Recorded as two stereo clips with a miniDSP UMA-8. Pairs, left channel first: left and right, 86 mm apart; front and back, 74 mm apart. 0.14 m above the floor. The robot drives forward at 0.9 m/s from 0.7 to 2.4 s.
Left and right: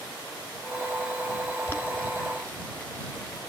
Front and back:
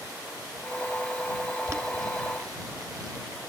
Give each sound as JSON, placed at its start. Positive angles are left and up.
{"t": 1.7, "sound": "boiling", "azimuth_deg": 145, "distance_m": 1.6}